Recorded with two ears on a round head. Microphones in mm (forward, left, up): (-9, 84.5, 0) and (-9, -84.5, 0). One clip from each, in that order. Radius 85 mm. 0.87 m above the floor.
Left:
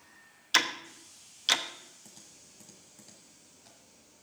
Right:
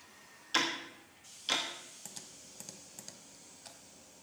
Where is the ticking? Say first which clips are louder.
Left 5 dB; 50° left (ahead or behind), 1.1 m.